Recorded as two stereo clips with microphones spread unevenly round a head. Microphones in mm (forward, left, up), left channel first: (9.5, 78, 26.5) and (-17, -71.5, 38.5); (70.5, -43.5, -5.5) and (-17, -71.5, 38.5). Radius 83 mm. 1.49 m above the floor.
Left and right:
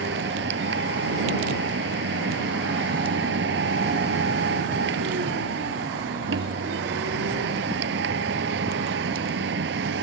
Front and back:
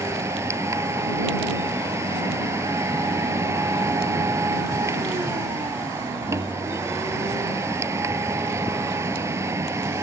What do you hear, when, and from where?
0.0 s a machine running: 110° right